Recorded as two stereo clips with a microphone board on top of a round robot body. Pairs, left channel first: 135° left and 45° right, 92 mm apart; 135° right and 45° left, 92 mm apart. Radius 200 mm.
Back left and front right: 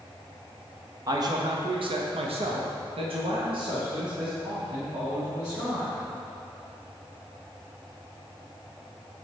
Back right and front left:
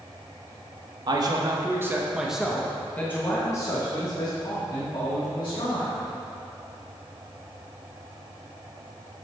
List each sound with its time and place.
1.1 s a man speaking: 5° left, 1.2 m; by 6.0 s 100° right, 3 m